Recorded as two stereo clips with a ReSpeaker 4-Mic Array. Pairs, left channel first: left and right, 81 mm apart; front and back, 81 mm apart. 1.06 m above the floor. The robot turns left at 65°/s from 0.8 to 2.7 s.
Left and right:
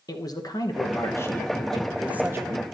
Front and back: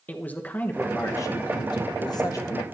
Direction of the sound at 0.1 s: 65° left.